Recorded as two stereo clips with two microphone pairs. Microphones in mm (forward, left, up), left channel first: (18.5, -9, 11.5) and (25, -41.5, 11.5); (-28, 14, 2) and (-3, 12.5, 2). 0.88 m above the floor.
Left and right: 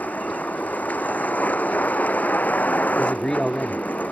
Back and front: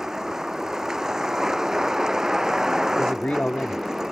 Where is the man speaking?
165° left.